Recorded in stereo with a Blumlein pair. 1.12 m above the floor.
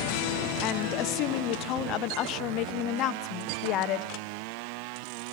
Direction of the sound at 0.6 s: 35° left.